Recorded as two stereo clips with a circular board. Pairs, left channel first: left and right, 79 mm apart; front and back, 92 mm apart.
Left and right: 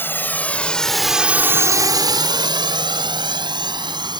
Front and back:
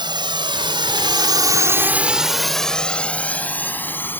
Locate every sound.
0.0 s a drone: 155° left; by 4.2 s 65° right